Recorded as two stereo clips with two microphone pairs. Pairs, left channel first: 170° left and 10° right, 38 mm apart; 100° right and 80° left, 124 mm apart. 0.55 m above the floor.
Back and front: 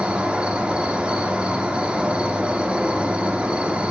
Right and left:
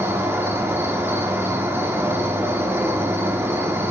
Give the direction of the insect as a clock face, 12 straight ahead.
11 o'clock.